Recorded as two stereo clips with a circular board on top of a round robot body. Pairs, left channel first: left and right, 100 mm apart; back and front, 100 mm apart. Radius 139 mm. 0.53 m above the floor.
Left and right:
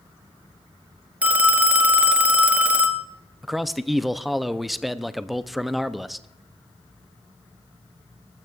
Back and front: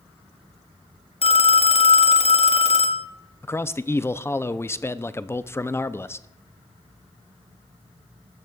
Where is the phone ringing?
165° right, 1.1 m.